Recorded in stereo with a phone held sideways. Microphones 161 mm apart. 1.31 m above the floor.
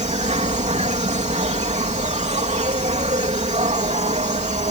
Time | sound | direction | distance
0.0 | an insect | 45° right (ahead or behind) | ?